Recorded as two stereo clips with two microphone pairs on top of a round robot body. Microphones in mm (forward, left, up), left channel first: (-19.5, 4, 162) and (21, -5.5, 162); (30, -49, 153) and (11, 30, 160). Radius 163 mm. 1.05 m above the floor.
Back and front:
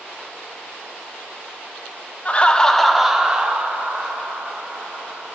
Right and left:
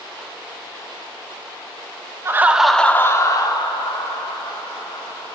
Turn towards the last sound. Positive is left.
turn(degrees=-70)